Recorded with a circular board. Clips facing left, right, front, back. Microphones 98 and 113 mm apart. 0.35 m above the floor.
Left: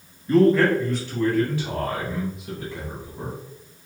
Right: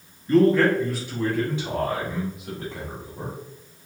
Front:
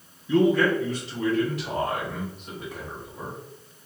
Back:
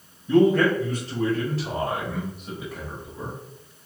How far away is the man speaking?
About 1.8 m.